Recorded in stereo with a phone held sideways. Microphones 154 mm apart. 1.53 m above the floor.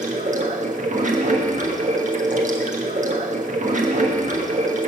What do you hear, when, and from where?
0.0 s running water: 55° right (ahead or behind), 1.4 m